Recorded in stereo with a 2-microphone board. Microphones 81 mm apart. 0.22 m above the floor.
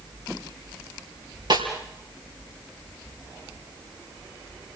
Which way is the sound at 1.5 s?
60° right (ahead or behind).